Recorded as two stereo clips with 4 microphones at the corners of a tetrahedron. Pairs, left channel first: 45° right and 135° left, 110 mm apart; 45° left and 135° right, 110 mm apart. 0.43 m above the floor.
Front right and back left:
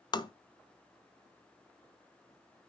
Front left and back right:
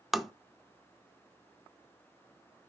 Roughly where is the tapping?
Ahead right.